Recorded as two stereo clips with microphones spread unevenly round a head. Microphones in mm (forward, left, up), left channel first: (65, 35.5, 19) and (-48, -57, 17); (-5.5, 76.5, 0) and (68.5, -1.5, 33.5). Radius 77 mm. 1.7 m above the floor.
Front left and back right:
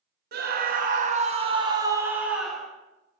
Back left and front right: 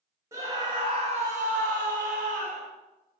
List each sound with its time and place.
0.3 s a scream: 120° right, 1.1 m; by 2.7 s 45° right, 1.0 m